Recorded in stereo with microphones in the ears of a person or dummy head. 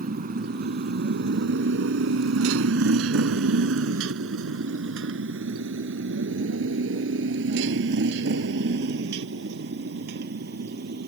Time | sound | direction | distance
0.0 | a motorcycle | 40° right (ahead or behind) | ?